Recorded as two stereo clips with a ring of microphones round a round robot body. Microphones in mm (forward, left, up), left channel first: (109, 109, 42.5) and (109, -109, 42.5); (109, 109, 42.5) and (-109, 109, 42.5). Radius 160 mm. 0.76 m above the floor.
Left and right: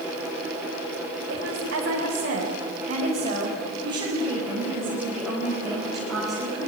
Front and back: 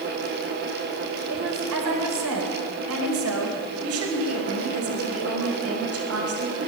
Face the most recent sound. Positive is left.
turn(degrees=180)